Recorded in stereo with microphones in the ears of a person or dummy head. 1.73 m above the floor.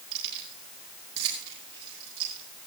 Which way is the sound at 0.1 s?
65° right (ahead or behind).